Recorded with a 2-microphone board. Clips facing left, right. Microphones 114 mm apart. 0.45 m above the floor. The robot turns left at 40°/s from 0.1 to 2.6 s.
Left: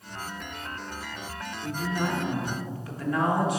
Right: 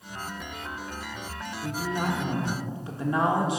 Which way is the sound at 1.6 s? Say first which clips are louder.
Even; 20° right (ahead or behind).